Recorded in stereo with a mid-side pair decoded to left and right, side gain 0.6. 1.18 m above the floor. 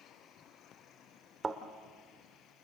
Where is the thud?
25° right, 1.8 m.